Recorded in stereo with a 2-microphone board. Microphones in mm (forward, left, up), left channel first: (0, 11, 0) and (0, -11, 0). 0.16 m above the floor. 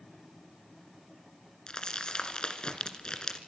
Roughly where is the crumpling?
Left.